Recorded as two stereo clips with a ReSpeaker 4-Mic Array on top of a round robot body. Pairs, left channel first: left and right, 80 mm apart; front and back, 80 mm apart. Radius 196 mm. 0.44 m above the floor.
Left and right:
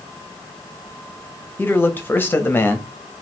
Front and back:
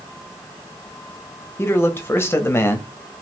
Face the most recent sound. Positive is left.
turn(degrees=40)